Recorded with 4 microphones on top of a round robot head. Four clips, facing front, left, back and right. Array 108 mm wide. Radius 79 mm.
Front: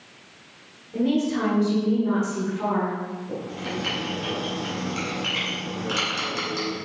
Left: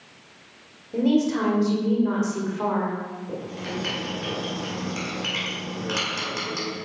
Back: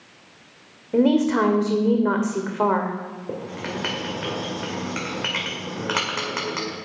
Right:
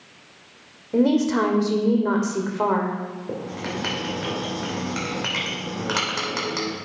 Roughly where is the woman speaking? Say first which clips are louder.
Right 2 dB, back 5 dB; behind right.